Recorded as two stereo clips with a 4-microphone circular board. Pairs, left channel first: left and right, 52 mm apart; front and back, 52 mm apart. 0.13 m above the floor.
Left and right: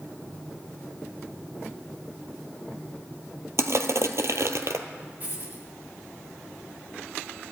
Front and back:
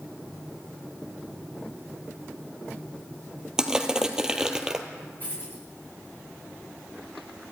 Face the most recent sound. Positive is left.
turn(degrees=-45)